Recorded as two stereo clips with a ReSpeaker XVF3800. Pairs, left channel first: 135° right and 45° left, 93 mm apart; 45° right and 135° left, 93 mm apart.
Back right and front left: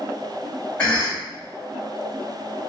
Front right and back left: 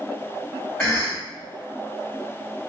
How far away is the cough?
About 1.0 m.